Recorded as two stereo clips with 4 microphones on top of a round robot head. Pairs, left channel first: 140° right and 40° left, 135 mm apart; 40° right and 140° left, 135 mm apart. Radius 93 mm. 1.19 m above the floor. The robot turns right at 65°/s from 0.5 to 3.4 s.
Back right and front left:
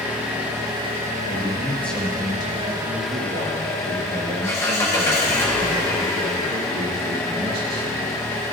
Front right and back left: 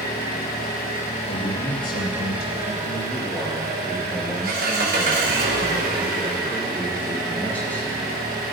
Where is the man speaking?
100° right, 1.6 m; by 8.1 s 40° left, 1.6 m.